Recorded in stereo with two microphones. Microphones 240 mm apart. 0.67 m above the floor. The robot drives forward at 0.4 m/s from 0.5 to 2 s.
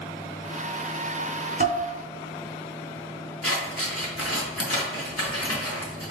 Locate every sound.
1.6 s dishes clattering: 40° right (ahead or behind), 1.3 m; by 1.8 s 35° right (ahead or behind), 1.3 m
3.4 s scissors: 70° left (ahead or behind), 1.3 m